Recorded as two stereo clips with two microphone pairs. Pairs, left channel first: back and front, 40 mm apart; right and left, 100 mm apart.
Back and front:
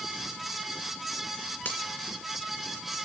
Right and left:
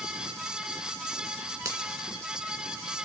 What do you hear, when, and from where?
1.6 s a finger snap: 145° left, 3 m